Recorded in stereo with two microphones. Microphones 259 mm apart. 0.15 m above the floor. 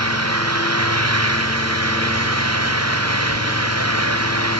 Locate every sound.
0.0 s an engine running: 75° right (ahead or behind)